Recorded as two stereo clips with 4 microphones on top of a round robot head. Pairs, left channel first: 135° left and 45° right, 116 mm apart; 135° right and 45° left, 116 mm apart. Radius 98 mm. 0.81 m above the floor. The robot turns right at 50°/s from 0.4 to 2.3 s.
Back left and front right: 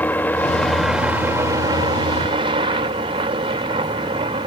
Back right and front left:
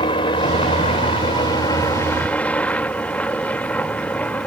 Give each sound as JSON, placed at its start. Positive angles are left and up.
{"t": 0.0, "sound": "a helicopter", "azimuth_deg": -155}